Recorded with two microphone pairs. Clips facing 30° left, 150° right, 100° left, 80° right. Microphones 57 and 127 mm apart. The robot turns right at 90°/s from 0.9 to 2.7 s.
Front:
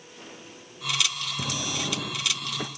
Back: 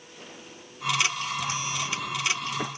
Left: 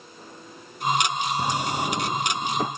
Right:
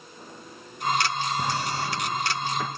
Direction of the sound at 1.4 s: 25° left.